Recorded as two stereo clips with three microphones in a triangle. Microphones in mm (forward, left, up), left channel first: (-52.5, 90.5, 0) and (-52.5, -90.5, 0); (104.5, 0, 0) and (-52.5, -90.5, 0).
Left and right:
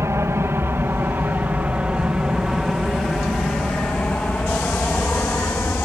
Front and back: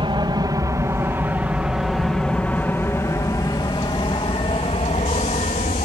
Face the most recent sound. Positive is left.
turn(degrees=15)